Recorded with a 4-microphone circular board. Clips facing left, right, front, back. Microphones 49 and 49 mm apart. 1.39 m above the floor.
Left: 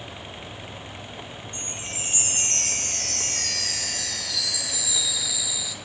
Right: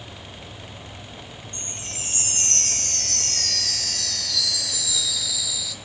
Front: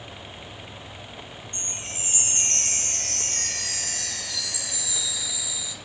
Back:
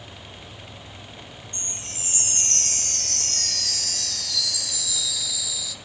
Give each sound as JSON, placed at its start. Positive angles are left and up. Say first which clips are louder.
{"t": 1.5, "sound": "a chime", "louder": "left 2 dB, front 2 dB", "azimuth_deg": 25, "distance_m": 1.2}